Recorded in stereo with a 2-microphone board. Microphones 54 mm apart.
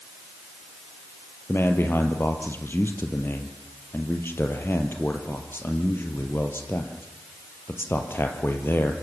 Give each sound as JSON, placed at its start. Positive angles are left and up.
{"t": 1.5, "sound": "a man speaking", "side_deg": 45, "distance_m": 3.0}